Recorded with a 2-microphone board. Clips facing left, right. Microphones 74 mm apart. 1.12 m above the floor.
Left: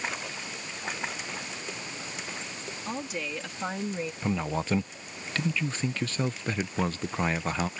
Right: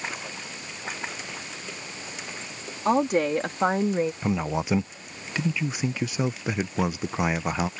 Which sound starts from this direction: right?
A woman speaking, at 2.9 s.